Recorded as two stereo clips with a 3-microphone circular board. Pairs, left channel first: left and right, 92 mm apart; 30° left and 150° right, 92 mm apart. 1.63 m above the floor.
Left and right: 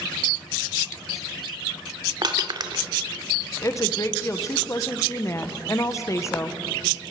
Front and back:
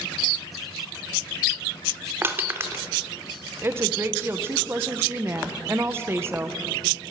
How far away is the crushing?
About 1.7 m.